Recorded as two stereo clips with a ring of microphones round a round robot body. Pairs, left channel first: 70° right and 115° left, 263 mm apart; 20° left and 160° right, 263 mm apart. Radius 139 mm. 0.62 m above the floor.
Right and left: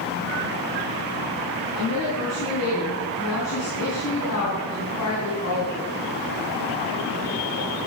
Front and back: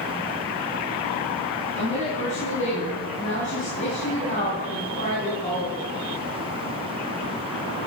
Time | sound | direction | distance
1.8 | a woman speaking | 40° right | 5 m